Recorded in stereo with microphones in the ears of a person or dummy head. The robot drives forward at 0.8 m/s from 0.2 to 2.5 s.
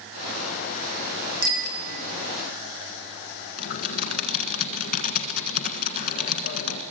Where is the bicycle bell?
55° right (ahead or behind), 2 m; by 2.0 s 45° right (ahead or behind), 2.5 m.